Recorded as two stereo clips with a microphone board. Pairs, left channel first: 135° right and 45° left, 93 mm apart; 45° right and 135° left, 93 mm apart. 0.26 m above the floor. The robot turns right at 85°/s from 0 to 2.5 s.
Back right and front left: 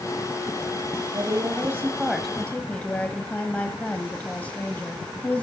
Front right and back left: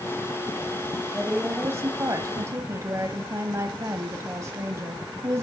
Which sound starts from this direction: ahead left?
A woman speaking, at 1.1 s.